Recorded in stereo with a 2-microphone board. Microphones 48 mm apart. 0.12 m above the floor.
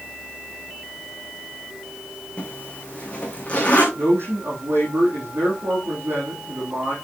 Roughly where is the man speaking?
Right.